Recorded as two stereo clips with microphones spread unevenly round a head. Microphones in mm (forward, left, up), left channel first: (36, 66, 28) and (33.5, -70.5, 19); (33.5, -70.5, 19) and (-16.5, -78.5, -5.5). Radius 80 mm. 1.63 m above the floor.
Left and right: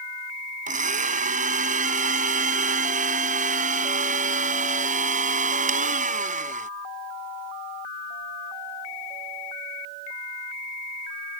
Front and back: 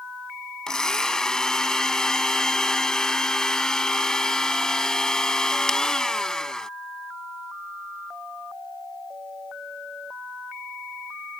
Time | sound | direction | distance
0.7 | a blender | 60° right | ?